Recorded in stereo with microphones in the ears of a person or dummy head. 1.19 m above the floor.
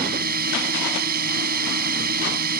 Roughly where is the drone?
Right.